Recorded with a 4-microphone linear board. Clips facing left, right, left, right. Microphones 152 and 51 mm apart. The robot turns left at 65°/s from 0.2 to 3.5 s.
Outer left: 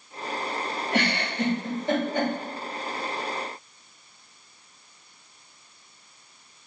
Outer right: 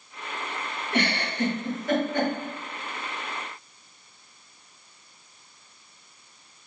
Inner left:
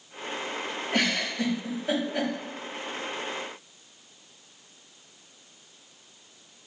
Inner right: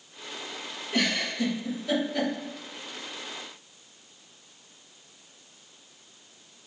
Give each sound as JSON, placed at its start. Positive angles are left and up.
{"t": 0.9, "sound": "a giggle", "side_deg": 80, "distance_m": 1.5}